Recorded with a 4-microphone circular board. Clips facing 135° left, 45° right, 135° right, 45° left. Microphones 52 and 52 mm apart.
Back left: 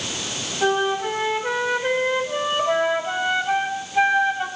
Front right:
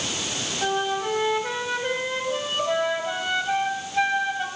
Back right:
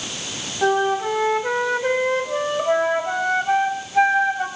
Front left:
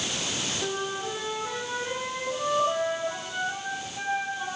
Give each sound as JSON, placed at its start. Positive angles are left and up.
{"t": 0.6, "sound": "a flute", "azimuth_deg": -150, "distance_m": 3.0}